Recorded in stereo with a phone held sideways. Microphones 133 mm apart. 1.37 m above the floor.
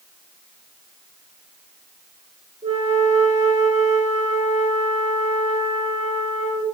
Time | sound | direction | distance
2.6 | a flute | 60° right (ahead or behind) | 2 m